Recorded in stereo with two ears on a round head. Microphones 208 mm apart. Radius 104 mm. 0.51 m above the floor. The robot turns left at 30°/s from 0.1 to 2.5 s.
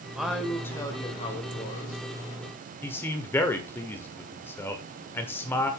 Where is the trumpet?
No trumpet in this recording.